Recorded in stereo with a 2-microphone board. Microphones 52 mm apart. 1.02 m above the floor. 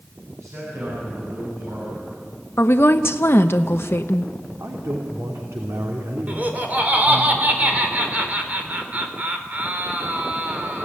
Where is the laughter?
30° right (ahead or behind), 3.5 m.